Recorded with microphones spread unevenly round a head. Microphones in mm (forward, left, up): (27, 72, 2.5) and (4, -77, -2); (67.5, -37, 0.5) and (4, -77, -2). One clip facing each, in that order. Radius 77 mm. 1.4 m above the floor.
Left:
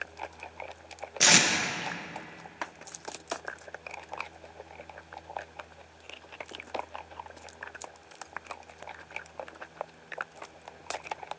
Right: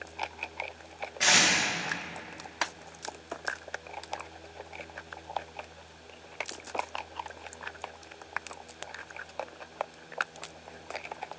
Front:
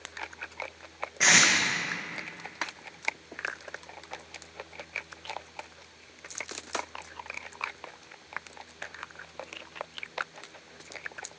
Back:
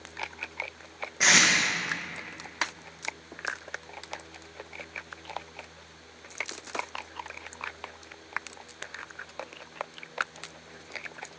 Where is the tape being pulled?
125° left, 1.3 m.